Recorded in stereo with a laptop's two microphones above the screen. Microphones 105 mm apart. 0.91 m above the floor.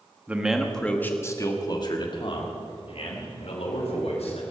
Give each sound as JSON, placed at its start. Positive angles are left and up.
{"t": 0.3, "sound": "a man speaking", "side_deg": -15, "distance_m": 1.2}